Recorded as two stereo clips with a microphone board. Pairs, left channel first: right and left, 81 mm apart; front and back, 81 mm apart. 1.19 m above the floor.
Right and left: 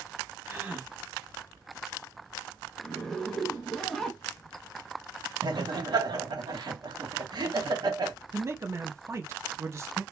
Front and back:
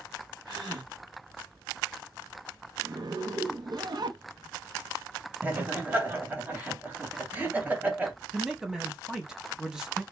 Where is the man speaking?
100° left, 0.6 m.